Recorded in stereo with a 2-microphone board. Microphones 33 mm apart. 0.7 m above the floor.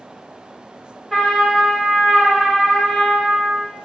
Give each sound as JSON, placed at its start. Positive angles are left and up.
{"t": 1.1, "sound": "a trumpet", "side_deg": 5, "distance_m": 1.7}